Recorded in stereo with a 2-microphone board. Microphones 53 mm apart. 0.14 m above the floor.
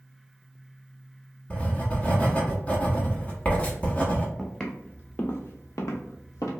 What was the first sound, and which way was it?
Writing, 20° left (ahead or behind).